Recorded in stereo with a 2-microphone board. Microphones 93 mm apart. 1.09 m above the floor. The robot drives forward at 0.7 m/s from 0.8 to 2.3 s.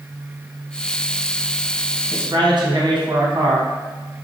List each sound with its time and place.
2.1 s a man speaking: 60° right (ahead or behind), 0.9 m; by 3.6 s 55° right (ahead or behind), 1.0 m